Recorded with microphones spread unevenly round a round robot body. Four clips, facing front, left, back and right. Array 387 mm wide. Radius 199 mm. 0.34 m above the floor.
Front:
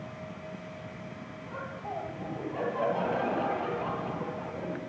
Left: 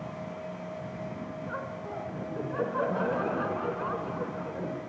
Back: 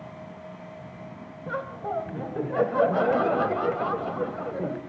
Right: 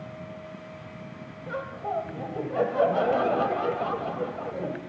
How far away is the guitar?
I don't hear a guitar.